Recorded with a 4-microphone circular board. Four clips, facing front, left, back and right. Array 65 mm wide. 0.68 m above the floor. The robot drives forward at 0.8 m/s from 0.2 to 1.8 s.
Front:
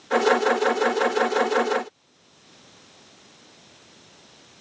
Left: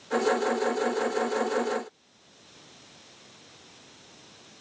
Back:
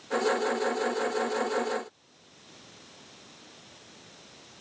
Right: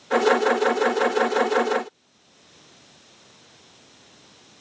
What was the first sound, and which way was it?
Only background noise.